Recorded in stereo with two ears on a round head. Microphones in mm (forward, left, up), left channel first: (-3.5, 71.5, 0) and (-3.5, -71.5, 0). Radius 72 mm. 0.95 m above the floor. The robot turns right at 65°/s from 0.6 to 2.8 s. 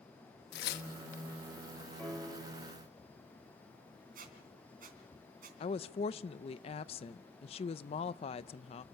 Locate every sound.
0.5 s tearing paper: 70° left (ahead or behind), 1.3 m; by 1.2 s 40° left (ahead or behind), 1.3 m
2.0 s a piano: 170° left, 2 m; by 2.7 s 145° right, 2 m
4.2 s a squeak: 55° right (ahead or behind), 3 m
5.6 s a woman speaking: 35° left (ahead or behind), 0.6 m